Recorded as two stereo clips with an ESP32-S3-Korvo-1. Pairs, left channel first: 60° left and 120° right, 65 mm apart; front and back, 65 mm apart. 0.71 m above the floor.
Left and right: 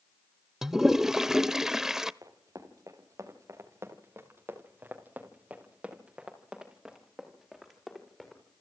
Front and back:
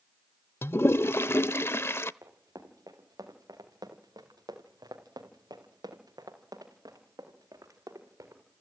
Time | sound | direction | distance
0.6 | a toilet flushing | 35° right | 0.6 m
2.2 | running footsteps | 145° right | 5 m